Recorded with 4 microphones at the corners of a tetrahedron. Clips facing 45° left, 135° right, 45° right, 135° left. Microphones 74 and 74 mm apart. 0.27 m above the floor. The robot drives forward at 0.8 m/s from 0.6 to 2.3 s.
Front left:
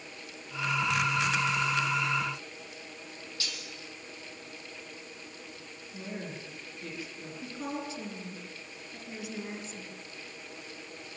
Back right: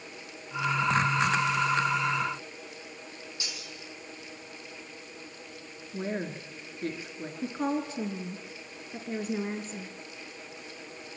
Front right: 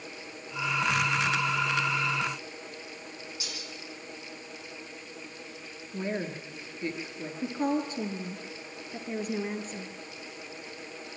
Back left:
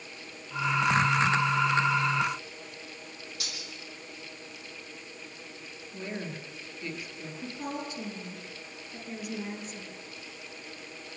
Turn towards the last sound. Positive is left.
turn(degrees=-90)